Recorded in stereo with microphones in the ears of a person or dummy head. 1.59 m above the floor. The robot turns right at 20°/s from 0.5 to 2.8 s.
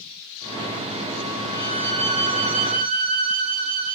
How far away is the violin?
About 1.0 m.